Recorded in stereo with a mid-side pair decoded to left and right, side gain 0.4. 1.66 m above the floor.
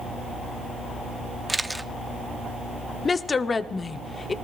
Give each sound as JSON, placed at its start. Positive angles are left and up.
{"t": 1.5, "sound": "a camera shutter", "azimuth_deg": -10, "distance_m": 0.8}
{"t": 3.0, "sound": "a woman speaking", "azimuth_deg": 40, "distance_m": 0.9}